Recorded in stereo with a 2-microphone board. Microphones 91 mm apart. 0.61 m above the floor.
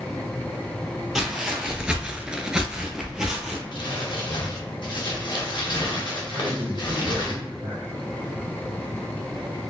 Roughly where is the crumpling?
Left.